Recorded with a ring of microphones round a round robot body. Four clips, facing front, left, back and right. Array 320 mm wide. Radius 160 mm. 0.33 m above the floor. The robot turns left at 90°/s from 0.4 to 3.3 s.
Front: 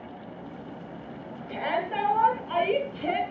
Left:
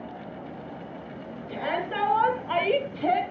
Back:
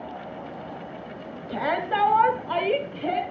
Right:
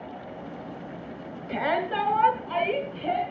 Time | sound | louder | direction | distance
1.5 | a shout | right 3 dB, back 3 dB | 130° right | 2.5 m